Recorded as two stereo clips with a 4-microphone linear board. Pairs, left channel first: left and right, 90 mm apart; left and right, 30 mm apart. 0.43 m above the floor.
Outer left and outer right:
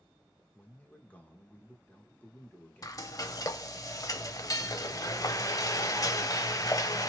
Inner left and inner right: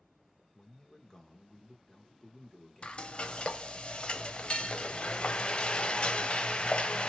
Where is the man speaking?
20° left (ahead or behind), 0.9 m.